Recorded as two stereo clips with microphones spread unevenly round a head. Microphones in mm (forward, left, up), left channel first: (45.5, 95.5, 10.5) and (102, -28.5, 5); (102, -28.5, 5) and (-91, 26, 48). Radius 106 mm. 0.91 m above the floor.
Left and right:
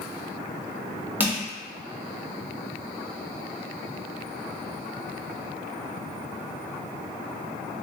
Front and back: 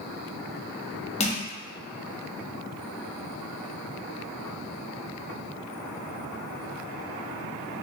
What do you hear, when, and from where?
1.2 s crushing: 5° left, 0.9 m